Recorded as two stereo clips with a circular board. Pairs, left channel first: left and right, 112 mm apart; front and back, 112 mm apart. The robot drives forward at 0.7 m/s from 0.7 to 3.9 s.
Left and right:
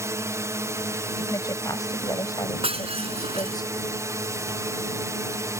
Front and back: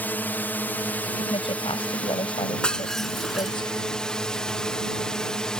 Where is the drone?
60° right; by 5.6 s 75° right.